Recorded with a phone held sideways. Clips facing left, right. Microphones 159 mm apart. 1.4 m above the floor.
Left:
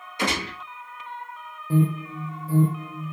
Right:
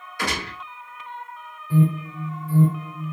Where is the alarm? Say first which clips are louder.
Right 2 dB; 40° left (ahead or behind), 1.8 m.